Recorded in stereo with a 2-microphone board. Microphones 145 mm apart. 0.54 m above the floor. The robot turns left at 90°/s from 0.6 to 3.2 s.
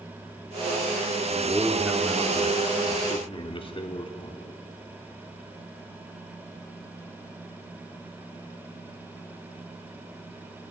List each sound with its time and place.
1.3 s a man speaking: 130° right, 0.9 m; by 4.4 s 60° left, 0.9 m